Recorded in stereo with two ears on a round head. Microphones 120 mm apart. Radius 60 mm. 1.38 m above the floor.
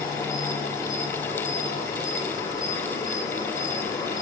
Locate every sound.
0.0 s an insect: 25° left (ahead or behind), 6 m